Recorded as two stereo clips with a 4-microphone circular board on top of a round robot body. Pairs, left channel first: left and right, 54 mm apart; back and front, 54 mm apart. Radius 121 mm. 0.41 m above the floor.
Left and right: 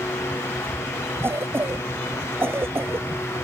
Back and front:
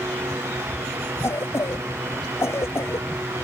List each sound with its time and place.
1.2 s a cough: 140° right